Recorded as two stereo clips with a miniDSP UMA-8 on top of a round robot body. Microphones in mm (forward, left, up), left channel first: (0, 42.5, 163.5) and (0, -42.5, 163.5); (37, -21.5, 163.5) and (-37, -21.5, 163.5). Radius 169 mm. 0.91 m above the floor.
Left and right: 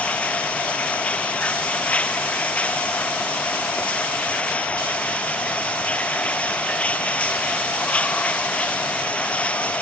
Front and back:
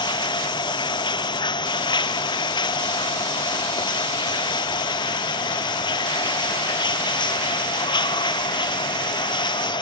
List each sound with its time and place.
0.0 s running water: 15° left